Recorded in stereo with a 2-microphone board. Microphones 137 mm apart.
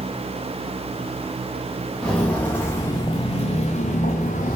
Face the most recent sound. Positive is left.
turn(degrees=80)